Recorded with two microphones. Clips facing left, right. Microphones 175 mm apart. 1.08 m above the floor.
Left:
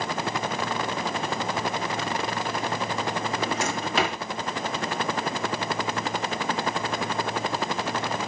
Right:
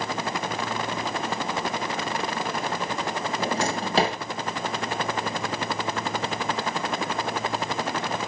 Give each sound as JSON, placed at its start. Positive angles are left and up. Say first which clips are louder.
{"t": 3.4, "sound": "a drawer", "louder": "right 1 dB", "side_deg": -35, "distance_m": 2.0}